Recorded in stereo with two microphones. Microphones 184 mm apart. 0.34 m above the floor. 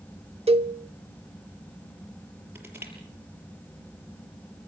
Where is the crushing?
10° right (ahead or behind), 6.5 m.